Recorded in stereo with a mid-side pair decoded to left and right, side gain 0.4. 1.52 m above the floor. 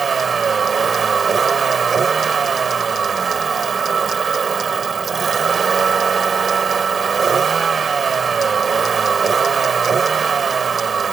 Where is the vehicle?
45° right.